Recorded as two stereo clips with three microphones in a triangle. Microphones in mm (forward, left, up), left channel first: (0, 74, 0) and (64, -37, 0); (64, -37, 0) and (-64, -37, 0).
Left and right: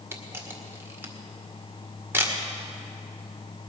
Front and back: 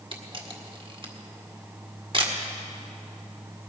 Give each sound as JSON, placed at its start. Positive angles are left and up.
{"t": 0.1, "sound": "a camera shutter", "azimuth_deg": -130, "distance_m": 1.6}